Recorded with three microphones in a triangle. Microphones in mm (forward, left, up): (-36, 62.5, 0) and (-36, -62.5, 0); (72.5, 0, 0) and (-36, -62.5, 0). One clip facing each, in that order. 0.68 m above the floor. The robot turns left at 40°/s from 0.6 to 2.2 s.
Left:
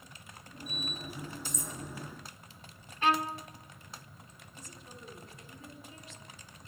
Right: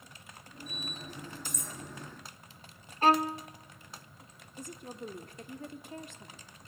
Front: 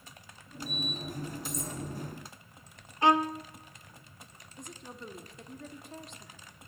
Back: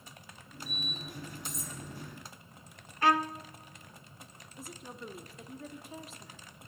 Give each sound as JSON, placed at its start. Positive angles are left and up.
{"t": 1.4, "sound": "cutlery clinking", "azimuth_deg": -55, "distance_m": 4.0}
{"t": 3.0, "sound": "a violin", "azimuth_deg": -40, "distance_m": 0.7}
{"t": 4.6, "sound": "a woman speaking", "azimuth_deg": -65, "distance_m": 1.4}